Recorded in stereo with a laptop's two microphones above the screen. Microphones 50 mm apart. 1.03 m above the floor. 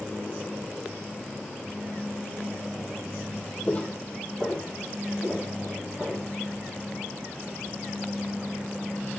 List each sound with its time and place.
3.7 s footsteps: 25° left (ahead or behind), 1.6 m; by 6.3 s 10° right (ahead or behind), 5 m